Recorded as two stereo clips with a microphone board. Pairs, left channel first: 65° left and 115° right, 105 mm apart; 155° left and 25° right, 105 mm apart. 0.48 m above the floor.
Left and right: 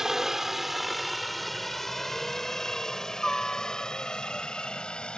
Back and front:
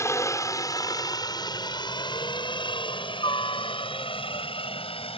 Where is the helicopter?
165° left; by 5.2 s 150° left.